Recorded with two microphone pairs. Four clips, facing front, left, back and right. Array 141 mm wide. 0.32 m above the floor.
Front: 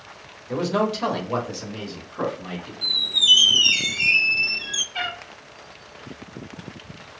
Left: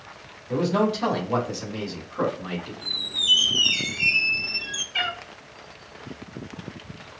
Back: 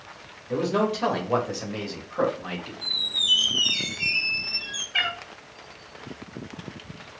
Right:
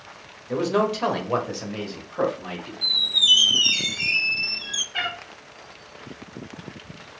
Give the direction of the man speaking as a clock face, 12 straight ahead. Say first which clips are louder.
Even, front 1 dB; 1 o'clock.